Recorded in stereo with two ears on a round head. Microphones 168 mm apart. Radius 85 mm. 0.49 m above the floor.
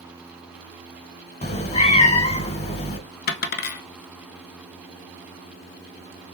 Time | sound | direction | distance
1.4 | a cat meowing | 35° left (ahead or behind) | 0.9 m
3.3 | a dropped coin | 55° left (ahead or behind) | 0.7 m